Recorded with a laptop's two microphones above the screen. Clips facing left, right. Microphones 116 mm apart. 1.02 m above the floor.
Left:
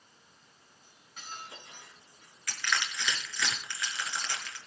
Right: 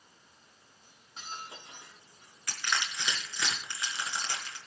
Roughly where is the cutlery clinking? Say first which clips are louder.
Right 2 dB; right.